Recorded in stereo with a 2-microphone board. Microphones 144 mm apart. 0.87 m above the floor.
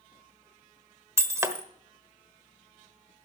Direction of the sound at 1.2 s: 20° right (ahead or behind).